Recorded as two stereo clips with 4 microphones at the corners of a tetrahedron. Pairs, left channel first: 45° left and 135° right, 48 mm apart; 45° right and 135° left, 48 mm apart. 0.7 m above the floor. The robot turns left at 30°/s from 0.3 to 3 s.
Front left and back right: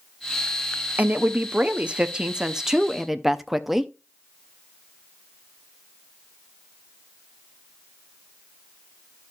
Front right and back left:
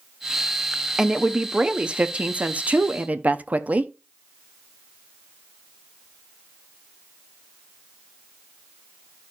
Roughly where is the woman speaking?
Behind right.